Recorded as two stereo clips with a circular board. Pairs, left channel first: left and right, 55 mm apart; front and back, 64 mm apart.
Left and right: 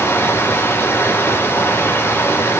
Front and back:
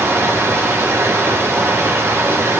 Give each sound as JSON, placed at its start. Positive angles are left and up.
{"t": 0.0, "sound": "running water", "azimuth_deg": 135, "distance_m": 3.5}